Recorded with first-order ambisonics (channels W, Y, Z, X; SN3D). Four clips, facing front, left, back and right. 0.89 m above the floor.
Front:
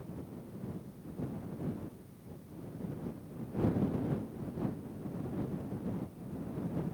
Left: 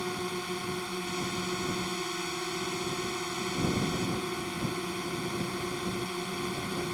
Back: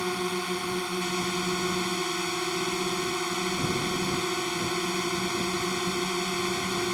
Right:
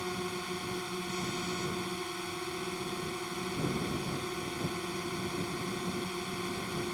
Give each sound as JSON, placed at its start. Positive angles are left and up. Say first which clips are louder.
{"t": 0.0, "sound": "a drone", "louder": "left 2 dB, back 18 dB", "azimuth_deg": 170}